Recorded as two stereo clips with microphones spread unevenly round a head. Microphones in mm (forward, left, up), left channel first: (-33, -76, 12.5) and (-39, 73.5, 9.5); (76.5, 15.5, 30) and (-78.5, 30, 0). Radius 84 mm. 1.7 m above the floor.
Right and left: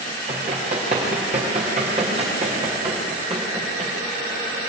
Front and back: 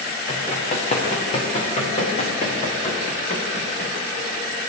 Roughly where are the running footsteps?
Ahead left.